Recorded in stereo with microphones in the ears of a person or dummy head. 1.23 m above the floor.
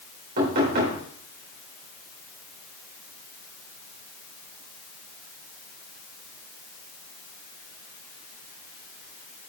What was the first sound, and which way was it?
Knocking, 55° right (ahead or behind).